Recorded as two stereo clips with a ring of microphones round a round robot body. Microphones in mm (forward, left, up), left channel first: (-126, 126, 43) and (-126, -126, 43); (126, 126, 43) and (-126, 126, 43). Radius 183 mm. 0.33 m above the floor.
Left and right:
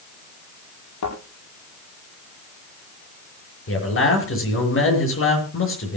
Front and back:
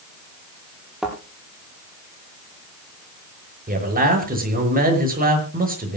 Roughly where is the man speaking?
Behind left.